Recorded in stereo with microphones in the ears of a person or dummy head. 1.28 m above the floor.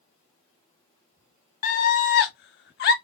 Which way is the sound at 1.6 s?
45° left (ahead or behind).